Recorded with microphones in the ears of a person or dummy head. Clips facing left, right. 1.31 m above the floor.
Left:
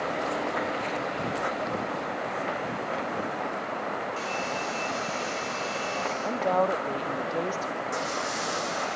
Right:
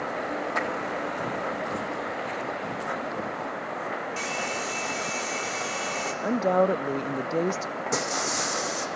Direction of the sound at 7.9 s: 60° right (ahead or behind).